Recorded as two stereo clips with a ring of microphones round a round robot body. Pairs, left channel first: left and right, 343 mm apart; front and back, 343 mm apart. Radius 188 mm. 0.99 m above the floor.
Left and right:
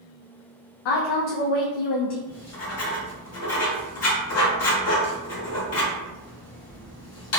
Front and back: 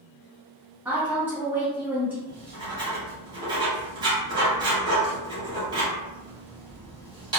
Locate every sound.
0.8 s a woman speaking: 95° left, 0.5 m
2.3 s writing: 105° left, 1.0 m